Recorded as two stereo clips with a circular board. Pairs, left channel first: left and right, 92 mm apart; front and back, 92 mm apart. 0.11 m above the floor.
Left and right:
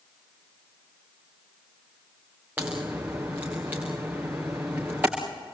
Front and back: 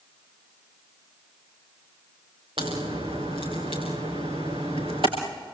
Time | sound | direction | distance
2.6 | a crack | 160° right | 5.5 m